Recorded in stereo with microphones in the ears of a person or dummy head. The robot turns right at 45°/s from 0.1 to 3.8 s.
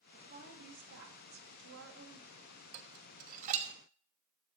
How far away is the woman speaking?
About 3.5 m.